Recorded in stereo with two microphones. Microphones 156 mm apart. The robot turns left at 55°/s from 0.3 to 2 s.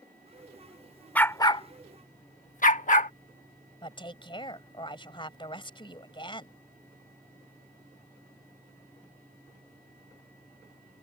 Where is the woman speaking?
30° left (ahead or behind).